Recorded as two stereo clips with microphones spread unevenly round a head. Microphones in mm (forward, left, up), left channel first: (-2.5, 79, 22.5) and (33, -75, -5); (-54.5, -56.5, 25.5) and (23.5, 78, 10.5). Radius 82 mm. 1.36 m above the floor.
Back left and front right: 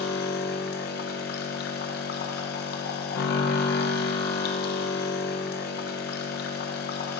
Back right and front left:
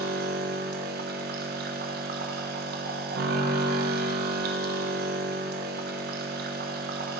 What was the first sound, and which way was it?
A machine running, 80° left.